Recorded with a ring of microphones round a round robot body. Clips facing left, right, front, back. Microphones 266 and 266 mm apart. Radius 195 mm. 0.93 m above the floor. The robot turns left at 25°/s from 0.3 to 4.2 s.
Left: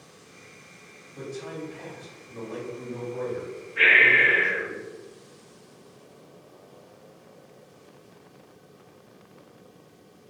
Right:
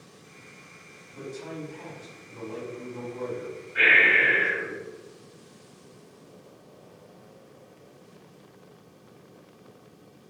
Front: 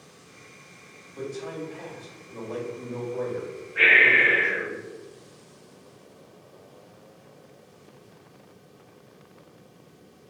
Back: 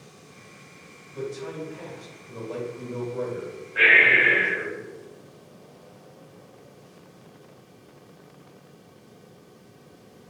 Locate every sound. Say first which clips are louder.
1.1 s a man speaking: left 1 dB, back 1 dB; 160° left, 1.9 m; by 4.8 s 80° left, 1.9 m
3.8 s breathing: left 1 dB, back 1 dB; 120° right, 1.1 m; by 4.6 s 130° right, 1.1 m